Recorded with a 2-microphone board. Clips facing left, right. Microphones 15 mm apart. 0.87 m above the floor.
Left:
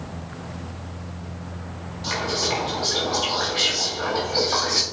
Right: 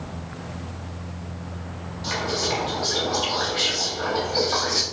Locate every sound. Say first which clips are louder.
2.0 s whispering: left 1 dB; 5° left (ahead or behind), 3 m